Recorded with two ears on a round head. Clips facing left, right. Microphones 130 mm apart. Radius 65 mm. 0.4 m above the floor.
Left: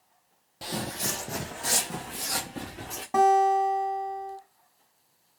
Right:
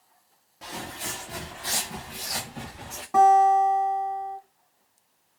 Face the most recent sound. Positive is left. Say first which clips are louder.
# right 4 dB
turn(degrees=20)  # may be behind; listen again after turning